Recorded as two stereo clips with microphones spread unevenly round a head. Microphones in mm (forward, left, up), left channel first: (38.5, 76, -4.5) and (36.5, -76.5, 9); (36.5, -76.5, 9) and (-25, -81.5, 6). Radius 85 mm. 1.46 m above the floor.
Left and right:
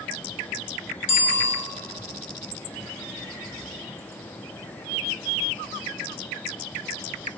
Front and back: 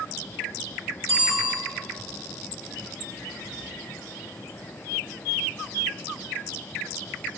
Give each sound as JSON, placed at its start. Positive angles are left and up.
{"t": 1.1, "sound": "a bicycle bell", "azimuth_deg": 90, "distance_m": 4.0}